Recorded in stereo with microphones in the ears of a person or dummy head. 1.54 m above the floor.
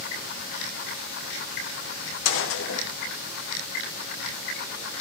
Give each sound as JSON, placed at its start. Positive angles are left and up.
{"t": 2.2, "sound": "a gunshot", "side_deg": 65, "distance_m": 0.6}